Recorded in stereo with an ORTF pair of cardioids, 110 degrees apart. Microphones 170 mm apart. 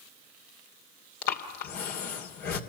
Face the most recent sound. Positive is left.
turn(degrees=65)